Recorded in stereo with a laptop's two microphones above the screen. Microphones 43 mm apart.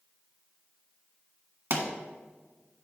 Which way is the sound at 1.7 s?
55° right (ahead or behind).